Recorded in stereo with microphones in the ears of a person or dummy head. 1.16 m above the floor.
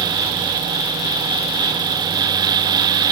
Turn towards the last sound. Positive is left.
No sound to turn to.